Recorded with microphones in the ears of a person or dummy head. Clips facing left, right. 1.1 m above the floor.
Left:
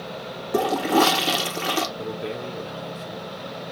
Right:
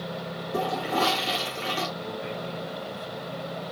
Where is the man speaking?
70° left (ahead or behind), 1.5 m.